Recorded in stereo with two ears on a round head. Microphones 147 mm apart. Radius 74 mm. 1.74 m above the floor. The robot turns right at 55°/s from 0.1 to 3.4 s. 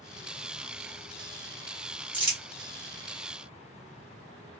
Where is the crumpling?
10° right (ahead or behind), 1.4 m; by 2.4 s 15° right (ahead or behind), 1.4 m.